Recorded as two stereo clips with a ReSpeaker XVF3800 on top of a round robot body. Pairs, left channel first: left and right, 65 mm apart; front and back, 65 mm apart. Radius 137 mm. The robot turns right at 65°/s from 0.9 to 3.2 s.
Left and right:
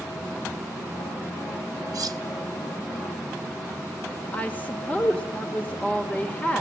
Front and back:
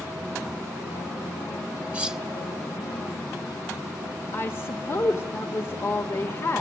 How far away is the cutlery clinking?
About 1.2 m.